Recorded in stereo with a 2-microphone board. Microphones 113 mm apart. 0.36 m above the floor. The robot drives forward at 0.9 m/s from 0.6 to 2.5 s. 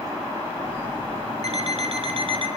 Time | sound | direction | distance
1.4 | an alarm clock | 65° right (ahead or behind) | 1.5 m